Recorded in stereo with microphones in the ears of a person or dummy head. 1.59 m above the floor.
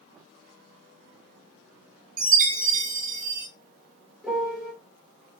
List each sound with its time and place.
2.2 s a chime: 45° right (ahead or behind), 0.8 m
4.2 s a piano: centre (ahead or behind), 0.8 m